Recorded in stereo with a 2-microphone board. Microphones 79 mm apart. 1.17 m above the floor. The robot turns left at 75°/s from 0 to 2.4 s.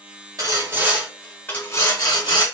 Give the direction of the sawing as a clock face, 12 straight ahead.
4 o'clock.